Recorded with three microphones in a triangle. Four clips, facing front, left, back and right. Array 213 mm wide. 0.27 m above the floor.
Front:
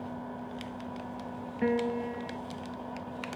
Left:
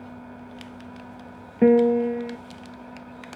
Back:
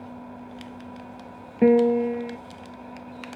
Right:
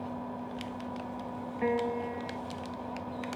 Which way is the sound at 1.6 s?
130° left.